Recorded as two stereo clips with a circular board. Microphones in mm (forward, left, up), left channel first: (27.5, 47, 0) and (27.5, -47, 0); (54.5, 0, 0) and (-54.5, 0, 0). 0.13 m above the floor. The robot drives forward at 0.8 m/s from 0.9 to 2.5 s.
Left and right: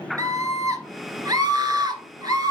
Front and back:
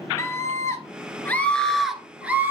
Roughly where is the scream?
Ahead right.